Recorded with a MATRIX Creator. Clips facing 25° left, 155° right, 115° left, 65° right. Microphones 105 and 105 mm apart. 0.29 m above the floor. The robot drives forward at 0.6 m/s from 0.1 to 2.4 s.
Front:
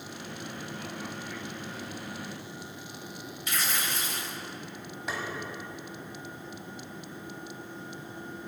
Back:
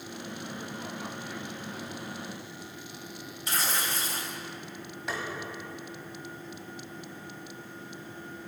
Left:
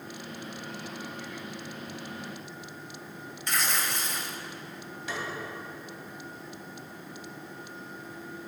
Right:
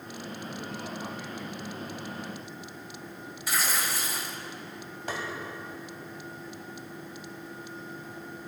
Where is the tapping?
65° right, 1.4 m.